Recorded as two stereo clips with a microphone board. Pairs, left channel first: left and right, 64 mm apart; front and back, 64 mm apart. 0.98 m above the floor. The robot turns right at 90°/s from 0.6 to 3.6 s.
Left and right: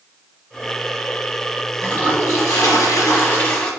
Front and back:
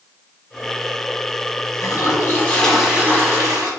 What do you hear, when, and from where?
1.8 s a toilet flushing: 5° left, 1.3 m; by 3.7 s 165° left, 1.3 m